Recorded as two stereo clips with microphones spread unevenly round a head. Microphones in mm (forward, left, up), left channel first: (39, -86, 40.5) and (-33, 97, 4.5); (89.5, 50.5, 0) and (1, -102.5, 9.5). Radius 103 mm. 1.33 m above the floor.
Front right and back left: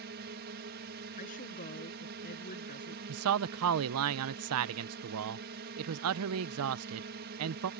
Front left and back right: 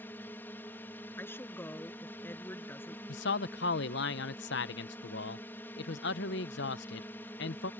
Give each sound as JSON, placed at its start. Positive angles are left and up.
{"t": 0.0, "sound": "a drone", "azimuth_deg": 140}
{"t": 1.2, "sound": "a woman speaking", "azimuth_deg": -20}
{"t": 3.1, "sound": "a man speaking", "azimuth_deg": 100}